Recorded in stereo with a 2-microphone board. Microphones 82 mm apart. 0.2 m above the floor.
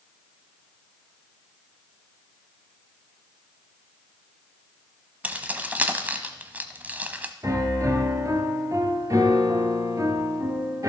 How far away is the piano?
About 1.7 m.